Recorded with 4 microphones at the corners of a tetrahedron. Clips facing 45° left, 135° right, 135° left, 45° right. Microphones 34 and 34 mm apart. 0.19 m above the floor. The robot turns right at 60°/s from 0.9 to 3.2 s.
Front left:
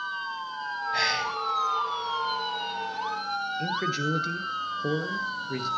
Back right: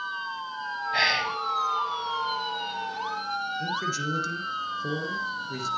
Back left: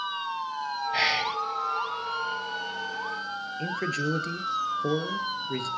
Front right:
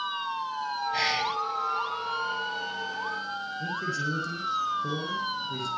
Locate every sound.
0.9 s whispering: straight behind, 1.1 m; by 1.4 s 155° right, 1.1 m
3.6 s a man speaking: 105° left, 2.5 m